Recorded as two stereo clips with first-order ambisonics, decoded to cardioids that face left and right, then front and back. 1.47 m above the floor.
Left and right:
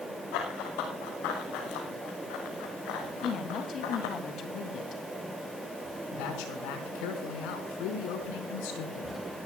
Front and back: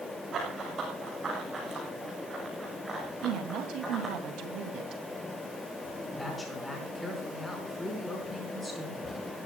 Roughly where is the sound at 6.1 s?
Left.